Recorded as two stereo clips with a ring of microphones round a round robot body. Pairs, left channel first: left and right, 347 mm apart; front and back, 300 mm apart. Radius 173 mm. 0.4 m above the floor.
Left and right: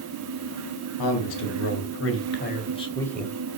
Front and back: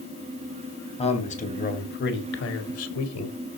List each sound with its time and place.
1.0 s a man speaking: 70° left, 3 m; by 3.4 s 5° right, 2 m